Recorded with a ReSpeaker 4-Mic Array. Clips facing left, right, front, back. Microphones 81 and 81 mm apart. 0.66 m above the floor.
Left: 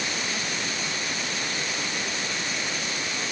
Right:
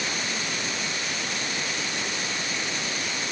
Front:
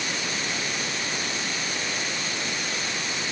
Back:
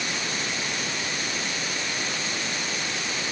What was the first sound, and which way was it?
Only background noise.